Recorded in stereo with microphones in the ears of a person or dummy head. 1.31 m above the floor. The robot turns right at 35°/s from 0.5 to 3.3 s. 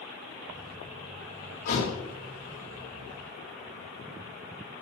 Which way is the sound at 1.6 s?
45° left (ahead or behind).